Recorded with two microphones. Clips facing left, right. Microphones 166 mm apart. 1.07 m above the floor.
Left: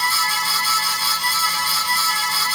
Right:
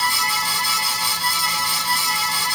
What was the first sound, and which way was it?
Only background noise.